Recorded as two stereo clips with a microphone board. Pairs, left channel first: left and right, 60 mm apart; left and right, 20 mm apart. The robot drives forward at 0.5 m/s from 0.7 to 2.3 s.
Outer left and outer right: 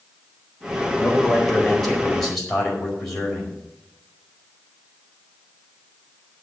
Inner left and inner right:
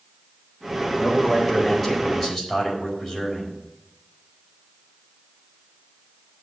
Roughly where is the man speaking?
Centre.